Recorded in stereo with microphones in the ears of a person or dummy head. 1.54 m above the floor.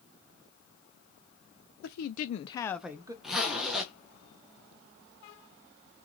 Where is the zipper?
5° right (ahead or behind), 0.8 m.